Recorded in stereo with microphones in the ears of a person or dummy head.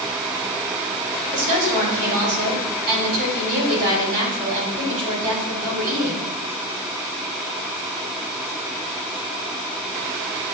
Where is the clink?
I don't hear a clink.